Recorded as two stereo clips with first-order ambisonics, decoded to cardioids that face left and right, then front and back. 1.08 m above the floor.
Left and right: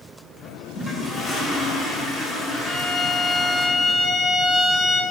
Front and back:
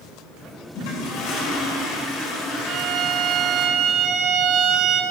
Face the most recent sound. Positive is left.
turn(degrees=-175)